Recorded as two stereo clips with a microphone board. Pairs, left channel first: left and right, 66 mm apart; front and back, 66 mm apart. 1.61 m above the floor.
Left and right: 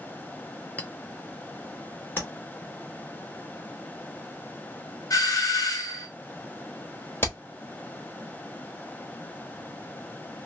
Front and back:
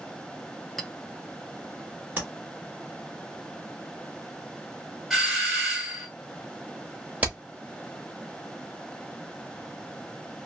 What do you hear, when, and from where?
0.8 s a clink: 75° left, 0.5 m
2.2 s tapping: 130° left, 1.3 m
5.1 s a doorbell: 95° left, 1.3 m
7.2 s hammering: 120° left, 1.2 m